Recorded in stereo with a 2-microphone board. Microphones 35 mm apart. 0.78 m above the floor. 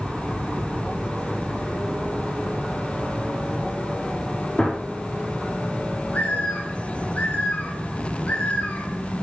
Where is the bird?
50° left (ahead or behind), 3 m.